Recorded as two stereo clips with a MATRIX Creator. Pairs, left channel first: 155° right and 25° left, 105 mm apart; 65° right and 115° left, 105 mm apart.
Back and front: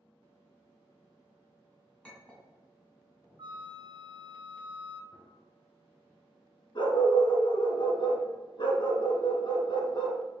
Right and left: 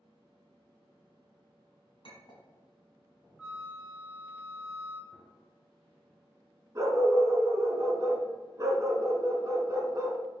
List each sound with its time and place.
2.0 s a clink: 80° right, 1.6 m
3.4 s a flute: 35° left, 0.6 m
5.1 s a gunshot: 15° right, 1.4 m
6.8 s a dog barking: 170° left, 1.0 m